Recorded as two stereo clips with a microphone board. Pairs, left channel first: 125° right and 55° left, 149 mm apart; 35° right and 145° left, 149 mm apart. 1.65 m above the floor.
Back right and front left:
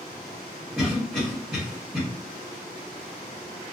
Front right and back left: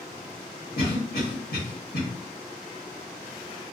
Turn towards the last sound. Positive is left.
turn(degrees=-20)